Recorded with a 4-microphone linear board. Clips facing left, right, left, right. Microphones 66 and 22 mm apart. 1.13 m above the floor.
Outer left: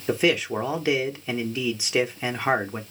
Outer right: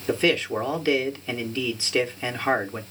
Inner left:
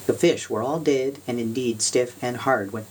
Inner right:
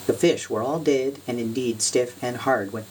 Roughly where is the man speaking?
Centre.